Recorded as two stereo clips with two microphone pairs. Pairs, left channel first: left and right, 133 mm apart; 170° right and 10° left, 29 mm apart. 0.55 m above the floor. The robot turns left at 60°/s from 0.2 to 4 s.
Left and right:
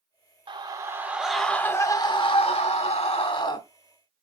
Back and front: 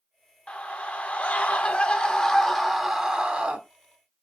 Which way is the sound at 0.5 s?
130° right.